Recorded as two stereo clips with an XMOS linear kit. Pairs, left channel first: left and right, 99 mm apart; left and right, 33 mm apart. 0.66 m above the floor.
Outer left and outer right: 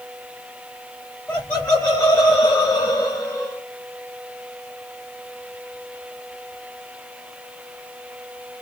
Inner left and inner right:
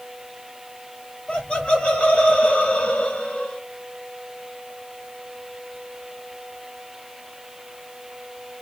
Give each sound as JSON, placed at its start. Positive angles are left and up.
{"t": 1.3, "sound": "laughter", "side_deg": 30, "distance_m": 1.8}